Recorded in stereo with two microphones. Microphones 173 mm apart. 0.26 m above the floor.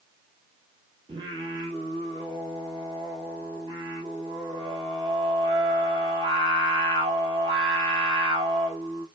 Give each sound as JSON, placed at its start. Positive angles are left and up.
{"t": 1.1, "sound": "singing", "side_deg": -30, "distance_m": 1.2}